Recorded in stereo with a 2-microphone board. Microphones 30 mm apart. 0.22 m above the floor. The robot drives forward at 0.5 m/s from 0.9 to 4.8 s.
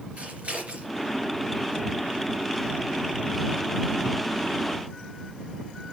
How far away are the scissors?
About 3.5 m.